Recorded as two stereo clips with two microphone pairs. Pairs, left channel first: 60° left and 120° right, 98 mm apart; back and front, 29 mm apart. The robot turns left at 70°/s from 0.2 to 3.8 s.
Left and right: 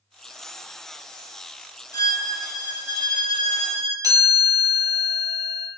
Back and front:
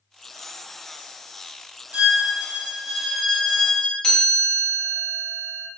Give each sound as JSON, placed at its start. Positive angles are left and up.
{"t": 1.9, "sound": "a violin", "azimuth_deg": 10, "distance_m": 0.6}
{"t": 4.0, "sound": "a chime", "azimuth_deg": -135, "distance_m": 1.0}